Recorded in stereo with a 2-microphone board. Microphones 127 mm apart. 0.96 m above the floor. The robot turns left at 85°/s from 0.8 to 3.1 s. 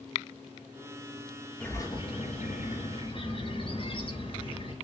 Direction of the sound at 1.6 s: 170° left.